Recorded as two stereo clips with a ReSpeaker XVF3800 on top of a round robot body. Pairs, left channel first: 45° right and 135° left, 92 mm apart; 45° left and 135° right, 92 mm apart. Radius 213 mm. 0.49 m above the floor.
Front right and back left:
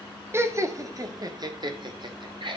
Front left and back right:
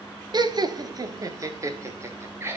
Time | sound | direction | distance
0.3 | laughter | 165° right | 1.7 m